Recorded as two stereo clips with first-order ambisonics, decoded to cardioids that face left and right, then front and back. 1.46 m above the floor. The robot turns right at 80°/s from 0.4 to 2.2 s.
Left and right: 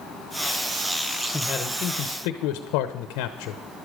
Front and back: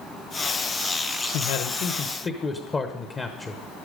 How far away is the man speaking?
About 1.1 m.